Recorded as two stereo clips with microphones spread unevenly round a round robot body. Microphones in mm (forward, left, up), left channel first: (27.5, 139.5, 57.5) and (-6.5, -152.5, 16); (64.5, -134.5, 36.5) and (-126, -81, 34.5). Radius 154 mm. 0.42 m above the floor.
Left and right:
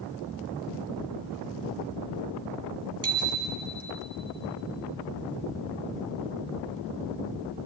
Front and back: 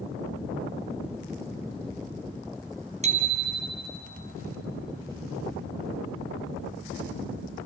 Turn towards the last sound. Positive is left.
turn(degrees=-140)